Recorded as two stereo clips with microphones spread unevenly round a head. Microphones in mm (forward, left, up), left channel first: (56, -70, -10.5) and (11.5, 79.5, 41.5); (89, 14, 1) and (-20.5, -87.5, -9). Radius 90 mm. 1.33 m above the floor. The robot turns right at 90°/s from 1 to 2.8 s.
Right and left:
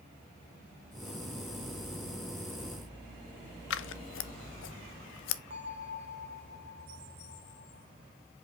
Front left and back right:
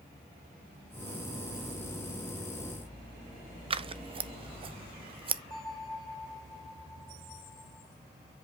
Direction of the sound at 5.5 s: 105° left.